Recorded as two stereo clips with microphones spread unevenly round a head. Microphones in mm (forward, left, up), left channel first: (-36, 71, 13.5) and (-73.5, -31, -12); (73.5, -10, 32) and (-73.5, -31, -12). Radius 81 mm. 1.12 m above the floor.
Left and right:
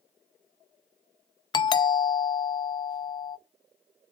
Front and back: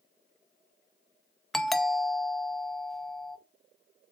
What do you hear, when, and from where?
1.5 s a doorbell: 115° left, 0.6 m